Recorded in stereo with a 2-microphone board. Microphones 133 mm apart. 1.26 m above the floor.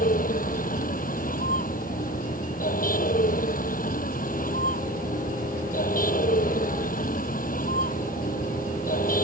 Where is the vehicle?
85° left.